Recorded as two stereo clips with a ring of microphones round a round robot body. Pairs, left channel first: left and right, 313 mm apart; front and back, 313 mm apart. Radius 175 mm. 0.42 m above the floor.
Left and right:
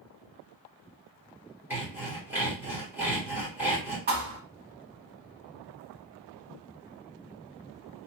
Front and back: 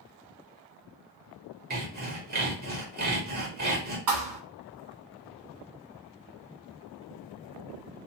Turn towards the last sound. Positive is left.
turn(degrees=-155)